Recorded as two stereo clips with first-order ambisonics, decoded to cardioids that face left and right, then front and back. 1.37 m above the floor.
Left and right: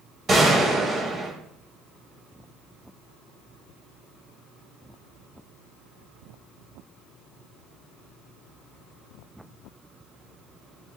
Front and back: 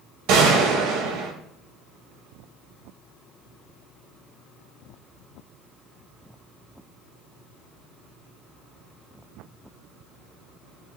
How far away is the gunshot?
About 3 m.